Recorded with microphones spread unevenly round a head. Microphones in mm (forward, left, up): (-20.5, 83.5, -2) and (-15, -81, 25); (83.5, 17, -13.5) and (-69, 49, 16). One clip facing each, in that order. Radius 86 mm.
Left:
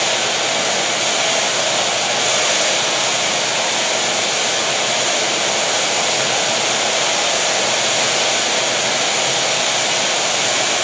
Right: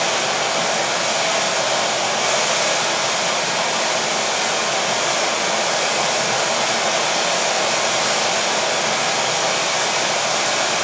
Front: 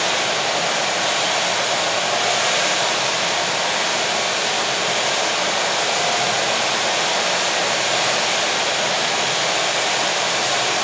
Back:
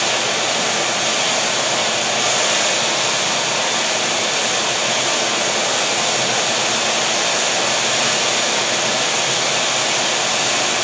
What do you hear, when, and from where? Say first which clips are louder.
0.0 s running water: even, back 1 dB; 145° left, 6 m